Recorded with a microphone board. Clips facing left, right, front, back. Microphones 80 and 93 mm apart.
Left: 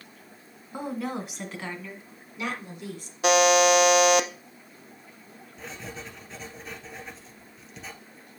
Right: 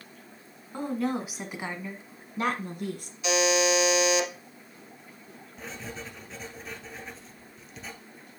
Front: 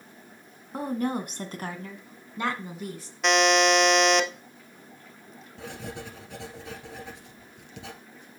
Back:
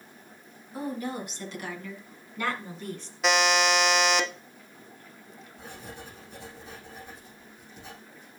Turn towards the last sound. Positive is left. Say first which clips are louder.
# even, front 6 dB
turn(degrees=0)